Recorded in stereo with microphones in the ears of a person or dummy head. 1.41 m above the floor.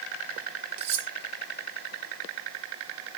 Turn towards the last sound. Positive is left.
turn(degrees=-35)  # may be behind; listen again after turning